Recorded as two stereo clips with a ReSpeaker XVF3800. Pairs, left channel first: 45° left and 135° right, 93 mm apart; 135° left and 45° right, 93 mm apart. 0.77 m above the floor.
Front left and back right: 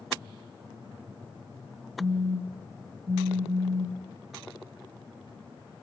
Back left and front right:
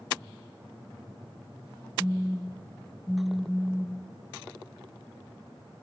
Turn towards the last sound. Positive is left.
turn(degrees=-150)